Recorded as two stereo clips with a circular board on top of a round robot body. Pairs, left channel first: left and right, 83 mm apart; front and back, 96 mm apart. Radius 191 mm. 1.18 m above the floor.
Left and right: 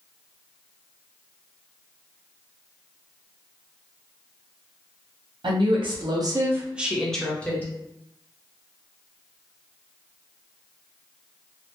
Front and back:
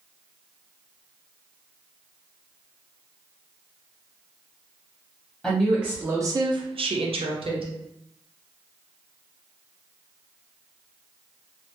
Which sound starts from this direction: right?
A woman speaking, at 5.4 s.